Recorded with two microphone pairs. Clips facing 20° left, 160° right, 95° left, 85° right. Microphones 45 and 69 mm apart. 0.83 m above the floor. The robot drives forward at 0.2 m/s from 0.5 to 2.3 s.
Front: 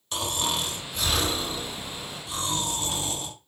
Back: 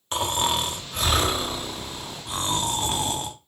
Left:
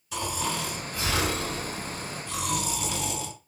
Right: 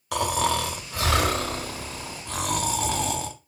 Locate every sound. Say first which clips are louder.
0.1 s snoring: back 4 dB, right 7 dB; 105° right, 0.6 m; by 3.4 s 130° right, 0.8 m